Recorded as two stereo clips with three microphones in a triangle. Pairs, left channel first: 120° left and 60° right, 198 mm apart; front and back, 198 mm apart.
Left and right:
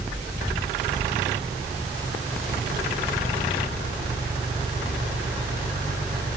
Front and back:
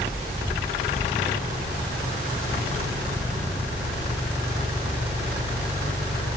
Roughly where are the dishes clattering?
No dishes clattering in this recording.